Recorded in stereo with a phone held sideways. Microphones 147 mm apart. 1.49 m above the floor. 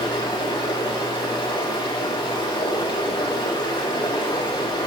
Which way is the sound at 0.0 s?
35° left (ahead or behind).